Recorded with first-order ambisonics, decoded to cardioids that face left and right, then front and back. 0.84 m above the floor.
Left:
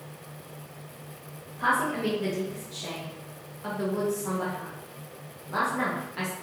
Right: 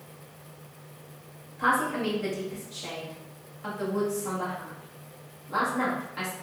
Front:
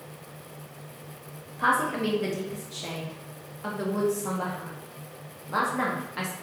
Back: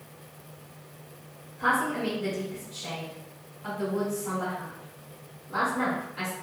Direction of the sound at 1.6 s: Straight ahead.